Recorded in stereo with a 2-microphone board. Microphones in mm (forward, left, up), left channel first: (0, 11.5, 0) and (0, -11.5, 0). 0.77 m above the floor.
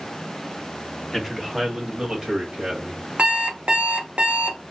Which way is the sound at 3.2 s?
60° right (ahead or behind).